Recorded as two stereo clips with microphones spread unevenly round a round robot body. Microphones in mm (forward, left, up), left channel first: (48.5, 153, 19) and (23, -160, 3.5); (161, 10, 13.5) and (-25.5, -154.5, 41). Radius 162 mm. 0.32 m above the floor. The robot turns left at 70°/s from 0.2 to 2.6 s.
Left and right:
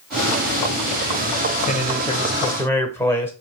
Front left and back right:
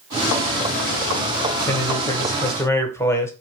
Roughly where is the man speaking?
Left.